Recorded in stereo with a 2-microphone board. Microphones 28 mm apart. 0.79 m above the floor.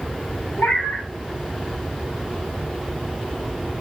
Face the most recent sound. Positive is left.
turn(degrees=80)